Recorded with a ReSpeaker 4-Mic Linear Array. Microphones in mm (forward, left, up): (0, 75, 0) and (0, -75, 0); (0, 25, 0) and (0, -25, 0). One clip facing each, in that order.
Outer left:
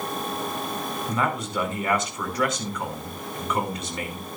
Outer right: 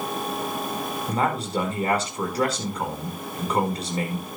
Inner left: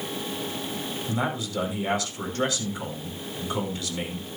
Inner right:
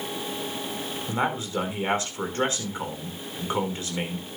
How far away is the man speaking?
About 5 m.